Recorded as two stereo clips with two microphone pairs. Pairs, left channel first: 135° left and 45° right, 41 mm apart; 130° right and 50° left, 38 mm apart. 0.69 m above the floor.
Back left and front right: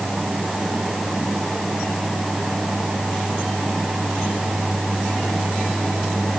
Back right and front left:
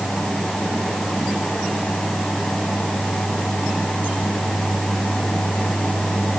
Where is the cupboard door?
I don't hear a cupboard door.